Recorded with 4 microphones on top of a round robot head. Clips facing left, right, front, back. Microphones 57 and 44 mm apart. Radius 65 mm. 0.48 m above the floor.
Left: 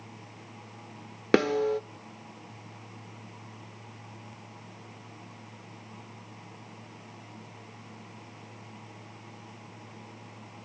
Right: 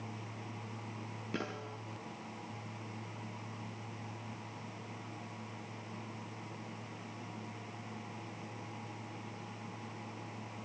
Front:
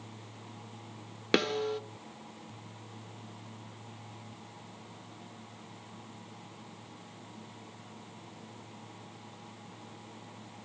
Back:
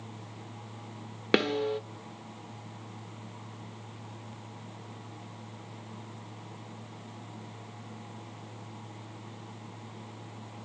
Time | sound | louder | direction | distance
1.3 | a snare drum | left 19 dB, back 2 dB | 100° left | 1.4 m